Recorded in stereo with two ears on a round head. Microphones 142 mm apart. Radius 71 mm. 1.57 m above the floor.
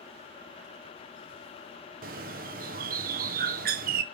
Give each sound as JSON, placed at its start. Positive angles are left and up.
{"t": 2.0, "sound": "a bird", "side_deg": -55, "distance_m": 0.7}